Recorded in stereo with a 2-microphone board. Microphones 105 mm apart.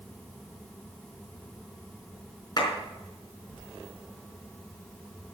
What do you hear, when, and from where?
2.6 s a clap: 40° left (ahead or behind), 4.5 m